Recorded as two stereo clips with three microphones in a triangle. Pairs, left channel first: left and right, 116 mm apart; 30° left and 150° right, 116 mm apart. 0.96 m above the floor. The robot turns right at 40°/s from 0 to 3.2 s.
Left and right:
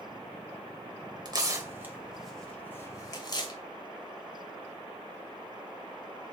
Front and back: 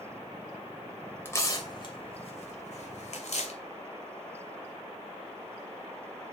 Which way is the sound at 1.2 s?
40° right.